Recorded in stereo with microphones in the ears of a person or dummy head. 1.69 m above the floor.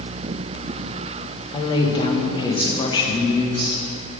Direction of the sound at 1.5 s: 35° left (ahead or behind).